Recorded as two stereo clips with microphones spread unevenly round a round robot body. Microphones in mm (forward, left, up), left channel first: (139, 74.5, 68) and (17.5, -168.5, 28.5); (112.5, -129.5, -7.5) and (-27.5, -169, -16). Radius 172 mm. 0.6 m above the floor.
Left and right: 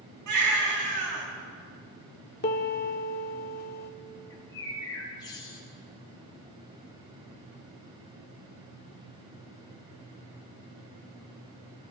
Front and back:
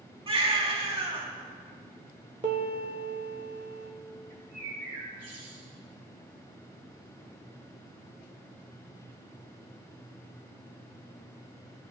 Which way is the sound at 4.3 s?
145° left.